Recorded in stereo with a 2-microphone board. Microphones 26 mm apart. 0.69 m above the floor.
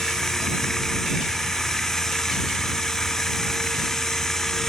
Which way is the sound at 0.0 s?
20° left (ahead or behind).